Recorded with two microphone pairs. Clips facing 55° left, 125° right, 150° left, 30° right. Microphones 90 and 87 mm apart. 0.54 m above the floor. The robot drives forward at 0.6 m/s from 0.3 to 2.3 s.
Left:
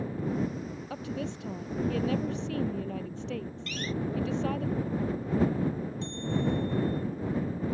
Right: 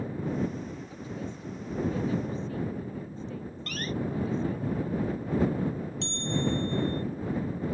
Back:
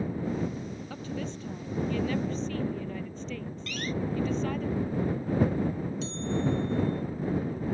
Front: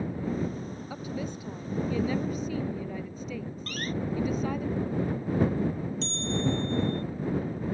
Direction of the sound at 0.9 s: 50° left.